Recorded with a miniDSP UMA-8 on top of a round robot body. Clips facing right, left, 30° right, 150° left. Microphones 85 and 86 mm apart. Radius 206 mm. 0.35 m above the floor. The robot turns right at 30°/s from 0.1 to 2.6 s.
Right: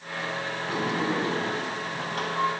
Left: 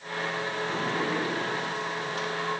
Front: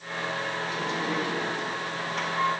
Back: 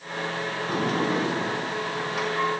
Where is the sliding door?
170° right, 5 m; by 2.5 s 115° right, 5 m.